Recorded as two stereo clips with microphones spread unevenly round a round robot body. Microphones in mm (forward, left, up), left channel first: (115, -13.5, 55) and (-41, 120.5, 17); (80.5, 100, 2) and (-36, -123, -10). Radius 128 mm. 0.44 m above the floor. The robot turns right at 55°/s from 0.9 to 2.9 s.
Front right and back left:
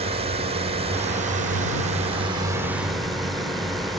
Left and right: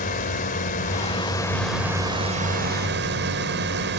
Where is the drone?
110° left; by 4.0 s 140° right.